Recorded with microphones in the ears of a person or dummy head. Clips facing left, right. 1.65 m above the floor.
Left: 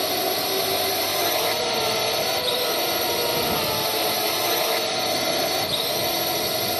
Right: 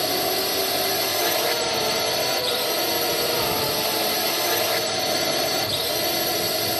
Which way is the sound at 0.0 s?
10° right (ahead or behind).